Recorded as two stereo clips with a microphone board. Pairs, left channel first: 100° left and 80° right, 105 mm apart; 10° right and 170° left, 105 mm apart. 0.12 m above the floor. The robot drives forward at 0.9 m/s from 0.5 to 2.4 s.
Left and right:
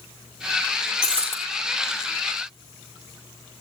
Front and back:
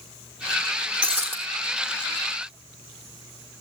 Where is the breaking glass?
90° left, 4 m; by 1.4 s 95° left, 4 m.